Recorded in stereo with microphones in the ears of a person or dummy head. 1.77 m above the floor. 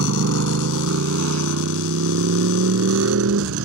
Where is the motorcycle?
70° right (ahead or behind); by 3.7 s 75° right (ahead or behind).